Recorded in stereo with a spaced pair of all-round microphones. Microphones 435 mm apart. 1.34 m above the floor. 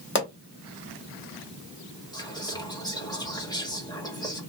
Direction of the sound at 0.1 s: 25° left (ahead or behind).